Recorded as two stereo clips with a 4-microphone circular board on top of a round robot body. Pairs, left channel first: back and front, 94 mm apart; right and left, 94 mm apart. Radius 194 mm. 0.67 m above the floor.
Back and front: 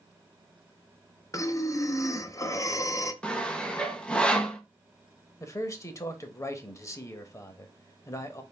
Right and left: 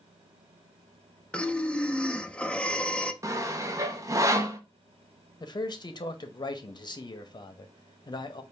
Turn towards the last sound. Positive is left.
turn(degrees=-125)